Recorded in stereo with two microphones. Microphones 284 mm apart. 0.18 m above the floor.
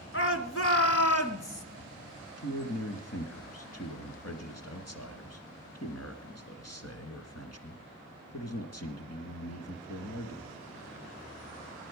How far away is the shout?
About 1.9 m.